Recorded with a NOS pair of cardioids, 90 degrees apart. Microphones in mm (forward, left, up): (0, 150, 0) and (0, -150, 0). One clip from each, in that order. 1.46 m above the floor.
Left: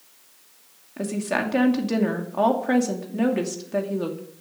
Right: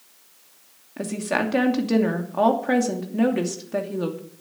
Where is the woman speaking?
10° right, 2.5 m.